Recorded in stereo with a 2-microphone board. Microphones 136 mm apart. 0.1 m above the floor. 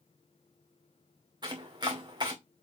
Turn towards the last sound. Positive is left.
turn(degrees=-30)  # may be behind; listen again after turning